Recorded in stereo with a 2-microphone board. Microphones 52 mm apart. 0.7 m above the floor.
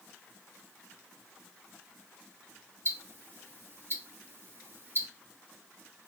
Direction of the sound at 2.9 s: 45° right (ahead or behind).